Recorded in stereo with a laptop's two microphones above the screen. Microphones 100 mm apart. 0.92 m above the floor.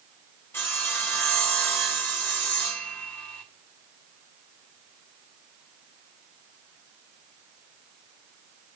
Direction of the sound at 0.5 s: 25° left (ahead or behind).